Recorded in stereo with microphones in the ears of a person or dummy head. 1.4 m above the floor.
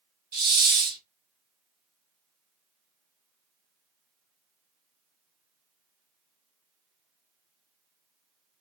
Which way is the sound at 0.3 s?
50° right (ahead or behind).